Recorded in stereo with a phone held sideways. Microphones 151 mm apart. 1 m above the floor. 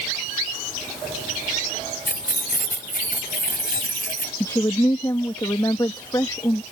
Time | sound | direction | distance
2.1 | keys jangling | 75° left (ahead or behind) | ?
4.4 | a woman speaking | 25° left (ahead or behind) | ?